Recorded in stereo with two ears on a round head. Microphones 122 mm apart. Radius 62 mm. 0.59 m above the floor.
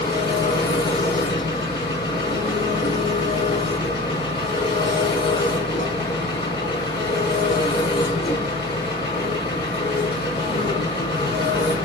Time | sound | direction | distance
0.0 | an engine running | 30° left (ahead or behind) | 4.5 m